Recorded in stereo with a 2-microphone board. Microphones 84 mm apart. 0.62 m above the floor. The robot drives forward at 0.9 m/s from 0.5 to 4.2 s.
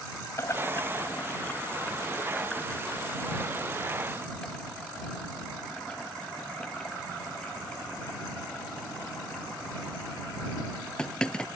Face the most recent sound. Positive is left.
turn(degrees=10)  # may be behind; listen again after turning